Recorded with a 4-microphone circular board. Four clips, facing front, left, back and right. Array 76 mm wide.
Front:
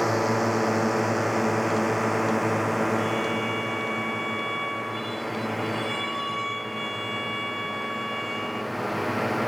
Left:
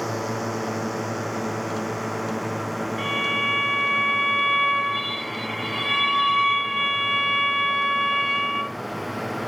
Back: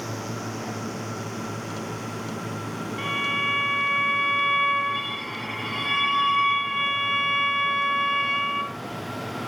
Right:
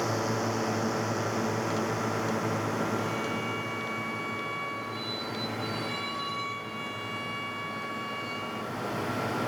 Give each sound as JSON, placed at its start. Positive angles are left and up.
{"t": 0.0, "sound": "a drone", "azimuth_deg": 5}
{"t": 3.0, "sound": "a violin", "azimuth_deg": 130}